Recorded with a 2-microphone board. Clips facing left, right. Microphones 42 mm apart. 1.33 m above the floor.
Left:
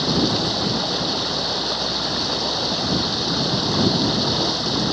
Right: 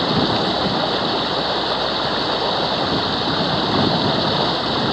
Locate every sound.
0.0 s running water: 25° right (ahead or behind)